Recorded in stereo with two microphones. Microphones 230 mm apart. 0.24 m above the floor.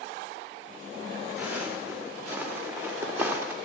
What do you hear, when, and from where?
1.4 s footsteps: 10° right (ahead or behind), 4 m